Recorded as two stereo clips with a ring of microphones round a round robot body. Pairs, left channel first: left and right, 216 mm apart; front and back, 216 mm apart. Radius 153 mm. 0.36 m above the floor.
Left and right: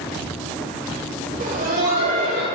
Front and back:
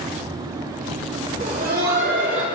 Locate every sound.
1.4 s laughter: 130° right, 1.2 m; by 2.5 s 145° right, 1.9 m